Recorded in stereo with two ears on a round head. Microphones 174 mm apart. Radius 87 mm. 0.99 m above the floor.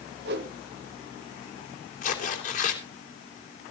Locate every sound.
0.2 s a whoosh: 60° right (ahead or behind), 1.6 m
2.0 s tearing paper: 40° left (ahead or behind), 3 m